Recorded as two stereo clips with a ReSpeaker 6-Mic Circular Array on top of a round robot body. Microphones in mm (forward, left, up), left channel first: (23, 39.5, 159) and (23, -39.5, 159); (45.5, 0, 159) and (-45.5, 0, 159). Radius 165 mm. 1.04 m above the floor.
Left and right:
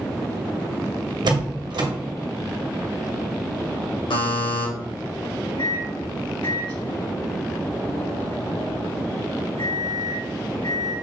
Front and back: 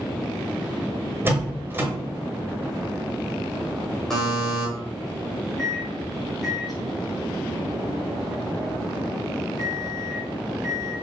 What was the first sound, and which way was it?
A door slam, 115° right.